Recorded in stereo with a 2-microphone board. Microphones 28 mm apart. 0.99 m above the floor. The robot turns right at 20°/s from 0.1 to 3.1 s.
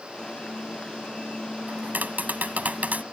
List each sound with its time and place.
1.7 s tapping: 90° right; by 3.0 s 65° right (ahead or behind)